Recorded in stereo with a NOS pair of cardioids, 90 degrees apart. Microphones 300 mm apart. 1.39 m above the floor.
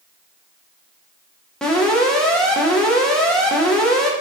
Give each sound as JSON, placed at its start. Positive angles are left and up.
{"t": 1.6, "sound": "an alarm", "azimuth_deg": 0, "distance_m": 1.0}